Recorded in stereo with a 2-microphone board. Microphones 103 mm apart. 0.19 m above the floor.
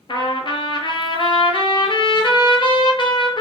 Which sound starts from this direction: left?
A trumpet, at 0.1 s.